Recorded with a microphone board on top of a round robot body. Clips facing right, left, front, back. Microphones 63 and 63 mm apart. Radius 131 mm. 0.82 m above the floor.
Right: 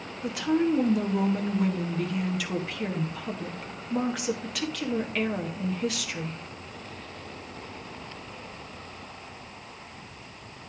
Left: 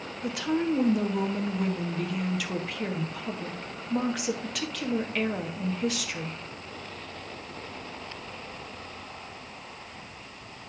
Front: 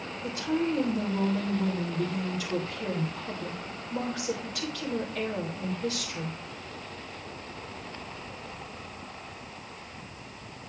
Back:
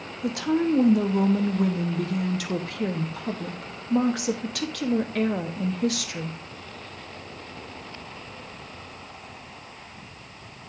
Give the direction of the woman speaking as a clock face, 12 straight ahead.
6 o'clock.